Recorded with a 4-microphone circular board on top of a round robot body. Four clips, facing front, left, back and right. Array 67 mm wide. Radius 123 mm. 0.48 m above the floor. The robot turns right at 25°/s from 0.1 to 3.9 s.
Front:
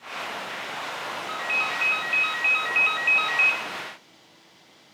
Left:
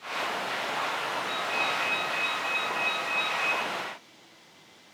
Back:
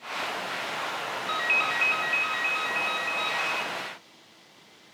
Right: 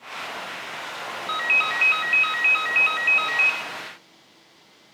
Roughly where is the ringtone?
Right.